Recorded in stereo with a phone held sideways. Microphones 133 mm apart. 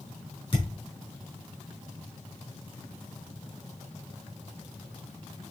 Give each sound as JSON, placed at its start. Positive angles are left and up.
{"t": 0.5, "sound": "a thud", "side_deg": 40, "distance_m": 6.5}